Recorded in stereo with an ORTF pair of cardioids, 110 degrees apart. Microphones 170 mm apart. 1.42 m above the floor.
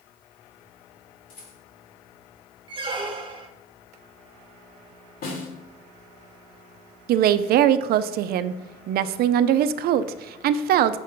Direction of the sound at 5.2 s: 65° left.